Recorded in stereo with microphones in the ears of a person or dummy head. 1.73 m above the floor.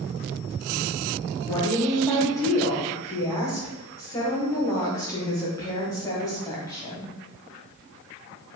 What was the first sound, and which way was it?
A woman speaking, 15° left (ahead or behind).